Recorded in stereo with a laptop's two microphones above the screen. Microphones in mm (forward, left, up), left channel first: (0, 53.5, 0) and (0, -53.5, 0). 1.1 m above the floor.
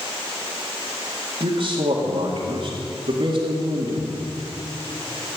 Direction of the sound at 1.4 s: 60° right (ahead or behind).